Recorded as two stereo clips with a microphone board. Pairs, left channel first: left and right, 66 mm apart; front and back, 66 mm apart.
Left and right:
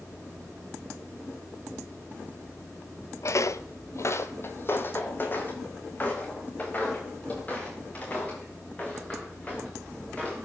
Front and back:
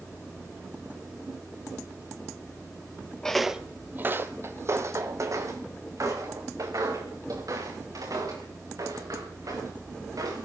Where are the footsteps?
75° left, 0.6 m; by 10.4 s 155° left, 5.5 m.